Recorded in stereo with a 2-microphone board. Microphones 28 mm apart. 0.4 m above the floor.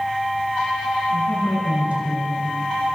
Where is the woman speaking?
55° right (ahead or behind), 4 m.